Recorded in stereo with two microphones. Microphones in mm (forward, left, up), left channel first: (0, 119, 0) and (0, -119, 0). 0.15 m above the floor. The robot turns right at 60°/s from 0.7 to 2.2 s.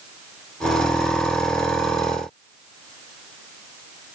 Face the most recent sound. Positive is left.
No sound to turn to.